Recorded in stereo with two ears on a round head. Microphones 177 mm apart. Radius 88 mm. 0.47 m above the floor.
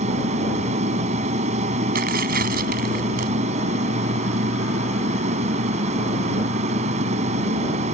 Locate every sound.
0.0 s an aircraft: 35° right (ahead or behind)
1.9 s tearing paper: 50° right (ahead or behind)